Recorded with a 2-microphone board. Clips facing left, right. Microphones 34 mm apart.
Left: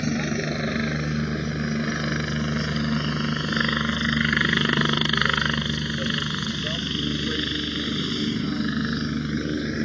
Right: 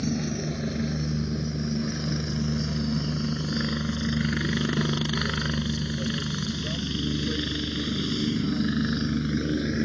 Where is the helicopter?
60° left (ahead or behind); by 9.8 s 10° left (ahead or behind).